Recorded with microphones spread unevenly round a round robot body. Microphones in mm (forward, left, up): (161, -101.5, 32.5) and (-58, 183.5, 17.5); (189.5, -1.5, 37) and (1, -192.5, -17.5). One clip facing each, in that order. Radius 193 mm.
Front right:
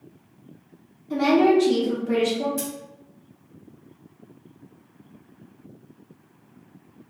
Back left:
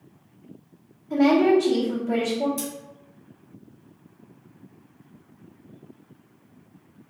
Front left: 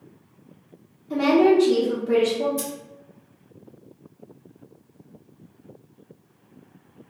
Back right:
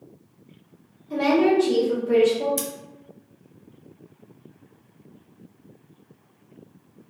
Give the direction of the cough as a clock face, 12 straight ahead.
No cough in this recording.